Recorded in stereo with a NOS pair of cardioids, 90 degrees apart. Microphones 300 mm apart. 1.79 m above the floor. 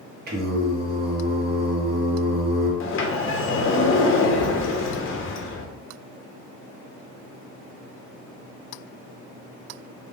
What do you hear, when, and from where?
0.3 s singing: 35° right, 0.8 m
2.8 s a sliding door: 45° left, 0.6 m